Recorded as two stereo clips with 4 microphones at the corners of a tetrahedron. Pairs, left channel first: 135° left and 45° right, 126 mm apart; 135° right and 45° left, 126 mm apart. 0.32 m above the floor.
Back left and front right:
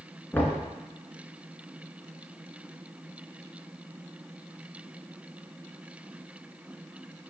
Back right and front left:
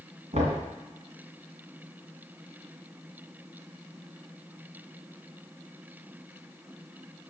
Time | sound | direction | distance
0.3 | knocking | 60° left | 2 m